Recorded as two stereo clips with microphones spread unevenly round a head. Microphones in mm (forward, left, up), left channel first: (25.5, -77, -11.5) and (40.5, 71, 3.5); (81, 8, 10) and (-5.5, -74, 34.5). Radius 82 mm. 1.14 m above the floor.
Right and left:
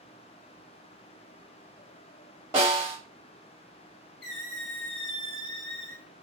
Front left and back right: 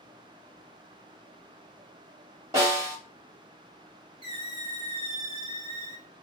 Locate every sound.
2.5 s a snare drum: 155° left, 1.9 m
4.2 s a squeak: 105° right, 2.5 m